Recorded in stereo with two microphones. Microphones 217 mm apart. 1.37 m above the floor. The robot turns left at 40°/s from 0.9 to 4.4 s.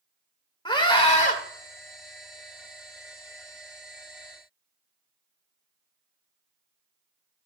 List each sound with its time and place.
0.7 s a scream: 20° left (ahead or behind), 2 m; by 1.4 s 40° left (ahead or behind), 2 m